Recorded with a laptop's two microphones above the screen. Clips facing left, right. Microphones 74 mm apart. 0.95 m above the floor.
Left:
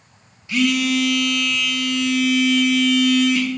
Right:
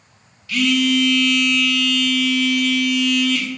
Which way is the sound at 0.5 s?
20° left (ahead or behind).